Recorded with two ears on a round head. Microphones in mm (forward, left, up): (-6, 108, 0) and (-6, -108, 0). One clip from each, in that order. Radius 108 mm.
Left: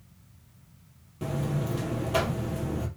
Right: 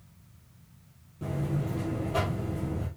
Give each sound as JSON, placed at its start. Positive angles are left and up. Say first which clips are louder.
{"t": 1.2, "sound": "a buzzer", "louder": "left 2 dB", "side_deg": 50, "distance_m": 2.5}